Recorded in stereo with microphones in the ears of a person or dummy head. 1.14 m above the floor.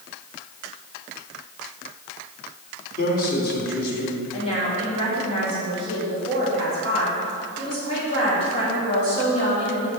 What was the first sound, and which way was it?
A man speaking, 55° left (ahead or behind).